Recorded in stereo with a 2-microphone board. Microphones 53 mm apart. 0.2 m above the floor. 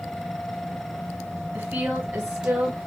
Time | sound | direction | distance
1.5 | a woman speaking | 35° right (ahead or behind) | 1.4 m